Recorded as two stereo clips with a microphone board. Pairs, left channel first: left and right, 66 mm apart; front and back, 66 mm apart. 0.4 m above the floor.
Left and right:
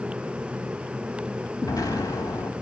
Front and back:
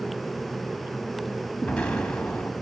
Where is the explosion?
75° left, 1.1 m.